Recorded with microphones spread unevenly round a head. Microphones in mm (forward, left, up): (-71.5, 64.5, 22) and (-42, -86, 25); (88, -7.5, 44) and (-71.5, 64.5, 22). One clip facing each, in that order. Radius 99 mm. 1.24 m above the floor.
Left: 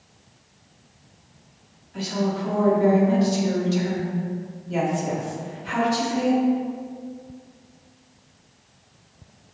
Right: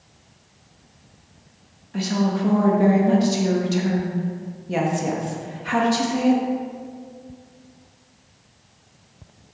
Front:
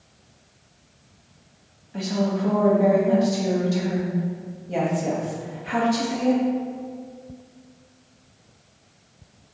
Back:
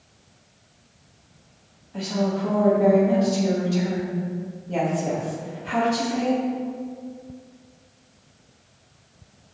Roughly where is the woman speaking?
Right.